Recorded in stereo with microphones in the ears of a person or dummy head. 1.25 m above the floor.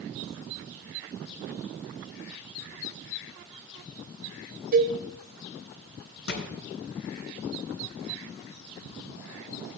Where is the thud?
75° left (ahead or behind), 3.5 m.